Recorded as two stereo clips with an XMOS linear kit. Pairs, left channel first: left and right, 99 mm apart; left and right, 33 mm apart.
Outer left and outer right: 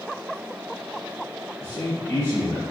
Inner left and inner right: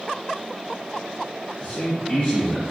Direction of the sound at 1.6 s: 15° left (ahead or behind).